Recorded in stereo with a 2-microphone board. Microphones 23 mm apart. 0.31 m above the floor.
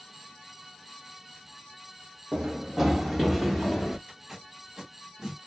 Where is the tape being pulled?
20° right (ahead or behind), 1.4 m.